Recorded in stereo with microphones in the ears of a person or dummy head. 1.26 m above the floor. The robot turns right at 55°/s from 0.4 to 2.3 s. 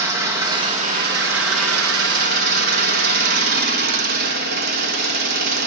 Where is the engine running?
165° right, 1.6 m; by 5.7 s 60° right, 1.6 m.